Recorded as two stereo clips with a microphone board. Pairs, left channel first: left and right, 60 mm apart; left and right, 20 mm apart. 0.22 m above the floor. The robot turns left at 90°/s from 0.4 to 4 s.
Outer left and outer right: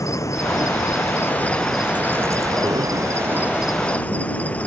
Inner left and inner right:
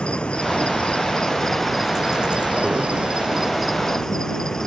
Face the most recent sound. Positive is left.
turn(degrees=155)